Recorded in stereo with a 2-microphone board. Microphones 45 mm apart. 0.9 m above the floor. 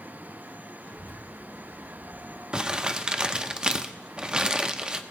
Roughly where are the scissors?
I don't hear scissors.